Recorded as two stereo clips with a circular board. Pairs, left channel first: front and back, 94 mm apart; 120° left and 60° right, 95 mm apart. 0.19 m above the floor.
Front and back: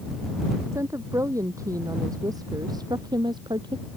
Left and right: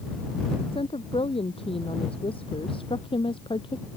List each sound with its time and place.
0.7 s a woman speaking: 120° left; by 3.9 s 145° left